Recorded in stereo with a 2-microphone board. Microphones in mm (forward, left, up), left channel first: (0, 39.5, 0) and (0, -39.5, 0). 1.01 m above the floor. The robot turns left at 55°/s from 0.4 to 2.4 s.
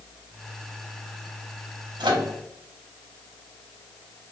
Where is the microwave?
80° right, 0.7 m.